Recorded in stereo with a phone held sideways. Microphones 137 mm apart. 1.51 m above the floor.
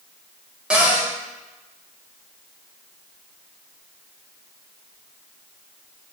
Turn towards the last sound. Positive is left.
turn(degrees=-5)  # may be behind; listen again after turning